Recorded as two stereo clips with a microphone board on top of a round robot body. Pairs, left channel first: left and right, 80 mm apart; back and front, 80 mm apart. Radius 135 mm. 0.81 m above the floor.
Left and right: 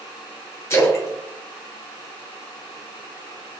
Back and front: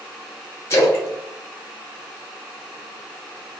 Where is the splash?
135° left, 1.0 m.